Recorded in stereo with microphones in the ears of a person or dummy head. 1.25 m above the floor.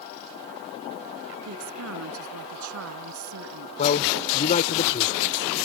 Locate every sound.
1.4 s a woman speaking: 80° right
3.8 s a man speaking: 40° left (ahead or behind)